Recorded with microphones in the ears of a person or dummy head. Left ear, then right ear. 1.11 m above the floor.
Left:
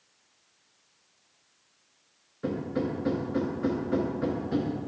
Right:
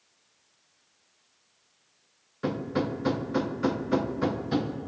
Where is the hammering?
30° right (ahead or behind), 0.5 m.